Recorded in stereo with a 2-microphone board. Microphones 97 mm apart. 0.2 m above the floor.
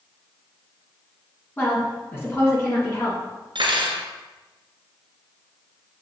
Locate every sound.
1.6 s a woman speaking: 25° left (ahead or behind), 2.5 m; by 3.2 s 30° left (ahead or behind), 3.5 m
3.5 s cutlery clinking: 65° right (ahead or behind), 1.5 m